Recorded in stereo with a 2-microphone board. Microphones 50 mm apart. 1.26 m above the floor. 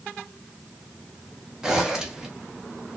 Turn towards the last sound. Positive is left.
turn(degrees=-10)  # may be behind; listen again after turning